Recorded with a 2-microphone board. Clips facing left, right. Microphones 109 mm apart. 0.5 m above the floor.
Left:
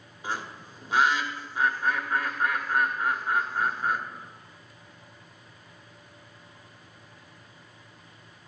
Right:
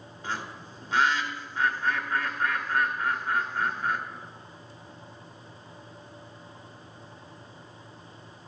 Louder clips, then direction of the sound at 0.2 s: Left 1 dB; 10° left (ahead or behind).